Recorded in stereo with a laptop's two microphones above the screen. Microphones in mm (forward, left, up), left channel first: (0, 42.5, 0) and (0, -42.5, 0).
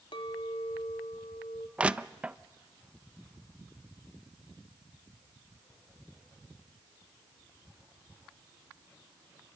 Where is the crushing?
15° right (ahead or behind), 0.5 m.